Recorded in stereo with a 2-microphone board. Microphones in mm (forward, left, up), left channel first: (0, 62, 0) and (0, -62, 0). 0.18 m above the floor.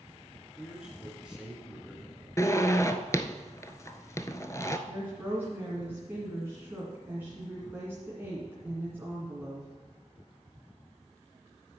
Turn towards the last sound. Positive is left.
turn(degrees=-15)  # may be behind; listen again after turning